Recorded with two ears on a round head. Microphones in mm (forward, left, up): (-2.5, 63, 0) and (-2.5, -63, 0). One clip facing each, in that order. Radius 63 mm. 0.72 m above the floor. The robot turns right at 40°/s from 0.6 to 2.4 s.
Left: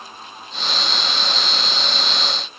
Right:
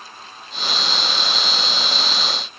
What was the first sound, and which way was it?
Only background noise.